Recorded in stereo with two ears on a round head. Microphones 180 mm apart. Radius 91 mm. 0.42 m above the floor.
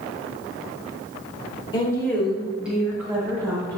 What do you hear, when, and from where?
1.7 s a woman speaking: 25° left (ahead or behind), 1.2 m; by 3.8 s 20° right (ahead or behind), 3 m